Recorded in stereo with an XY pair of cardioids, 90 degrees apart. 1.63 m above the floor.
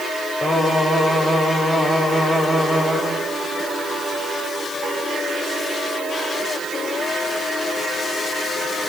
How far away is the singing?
About 7 m.